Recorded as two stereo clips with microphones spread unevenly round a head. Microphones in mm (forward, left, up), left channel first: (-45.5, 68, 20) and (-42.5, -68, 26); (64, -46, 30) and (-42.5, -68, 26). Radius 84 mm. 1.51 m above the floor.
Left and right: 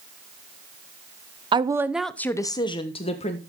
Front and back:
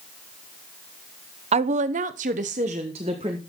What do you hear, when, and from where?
1.5 s a woman speaking: 145° right, 0.8 m; by 3.4 s 135° left, 1.5 m